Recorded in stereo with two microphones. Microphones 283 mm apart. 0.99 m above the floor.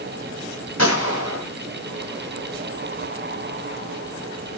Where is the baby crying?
I don't hear a baby crying.